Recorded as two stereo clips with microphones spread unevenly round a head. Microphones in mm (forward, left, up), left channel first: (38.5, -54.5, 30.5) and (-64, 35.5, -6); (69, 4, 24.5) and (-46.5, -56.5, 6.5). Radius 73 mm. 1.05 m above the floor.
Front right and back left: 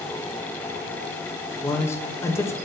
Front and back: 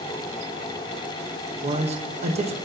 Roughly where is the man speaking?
Behind right.